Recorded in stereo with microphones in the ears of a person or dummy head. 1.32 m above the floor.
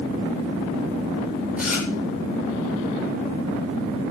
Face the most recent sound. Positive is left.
turn(degrees=-5)  # may be behind; listen again after turning